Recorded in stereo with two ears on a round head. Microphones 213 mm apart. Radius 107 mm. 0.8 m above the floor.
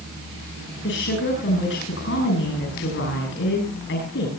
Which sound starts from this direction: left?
A woman speaking, at 0.8 s.